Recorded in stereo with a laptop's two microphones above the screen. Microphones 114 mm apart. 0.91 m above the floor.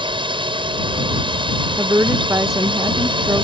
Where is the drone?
45° right (ahead or behind).